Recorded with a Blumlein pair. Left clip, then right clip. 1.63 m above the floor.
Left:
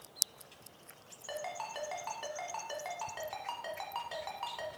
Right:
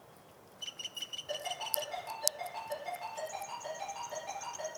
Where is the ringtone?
35° left, 1.4 m.